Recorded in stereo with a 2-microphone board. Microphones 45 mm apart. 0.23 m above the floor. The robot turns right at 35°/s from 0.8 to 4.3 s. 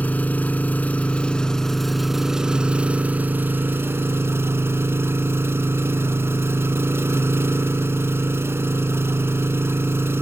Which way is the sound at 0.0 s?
140° left.